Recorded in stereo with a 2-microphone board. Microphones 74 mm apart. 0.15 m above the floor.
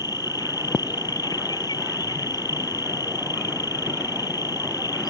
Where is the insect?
70° left (ahead or behind).